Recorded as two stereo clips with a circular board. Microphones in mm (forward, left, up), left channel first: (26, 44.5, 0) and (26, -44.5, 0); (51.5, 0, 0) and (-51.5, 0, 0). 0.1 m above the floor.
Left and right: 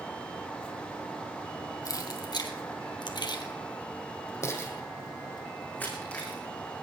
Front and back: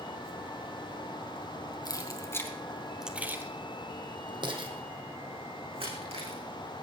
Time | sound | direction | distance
1.9 | keys jangling | 45° left | 2.5 m